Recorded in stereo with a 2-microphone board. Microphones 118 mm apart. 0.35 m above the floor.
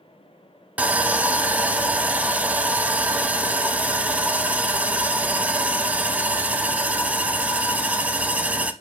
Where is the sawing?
10° right (ahead or behind), 0.6 m.